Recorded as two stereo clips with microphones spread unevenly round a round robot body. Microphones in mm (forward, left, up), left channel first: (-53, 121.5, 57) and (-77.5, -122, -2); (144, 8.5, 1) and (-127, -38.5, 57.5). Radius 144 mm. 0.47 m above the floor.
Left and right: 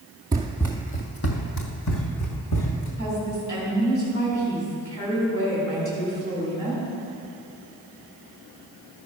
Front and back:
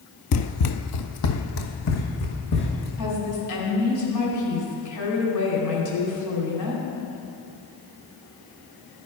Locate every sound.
0.3 s running footsteps: 10° right, 0.5 m; by 2.9 s 65° left, 2 m
3.0 s a woman speaking: 15° left, 3.5 m